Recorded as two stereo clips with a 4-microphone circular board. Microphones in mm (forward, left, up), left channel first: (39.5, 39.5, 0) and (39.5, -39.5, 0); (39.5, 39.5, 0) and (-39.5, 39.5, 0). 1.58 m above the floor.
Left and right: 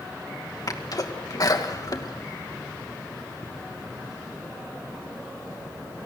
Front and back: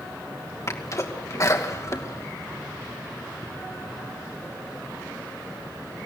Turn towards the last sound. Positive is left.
turn(degrees=50)